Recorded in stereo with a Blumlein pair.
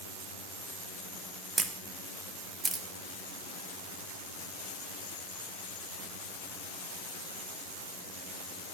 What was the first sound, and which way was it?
A camera shutter, 15° right.